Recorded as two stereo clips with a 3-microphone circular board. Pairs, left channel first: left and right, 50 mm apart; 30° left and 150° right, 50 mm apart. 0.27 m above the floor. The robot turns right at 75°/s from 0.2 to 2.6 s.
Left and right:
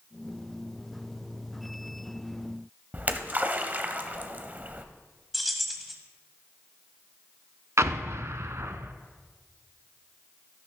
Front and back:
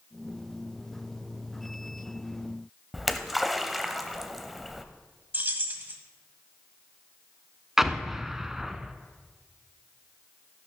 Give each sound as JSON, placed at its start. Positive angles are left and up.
{"t": 2.9, "sound": "a splash", "azimuth_deg": -60, "distance_m": 0.7}
{"t": 5.3, "sound": "keys jangling", "azimuth_deg": 180, "distance_m": 1.3}
{"t": 7.8, "sound": "an explosion", "azimuth_deg": -70, "distance_m": 0.6}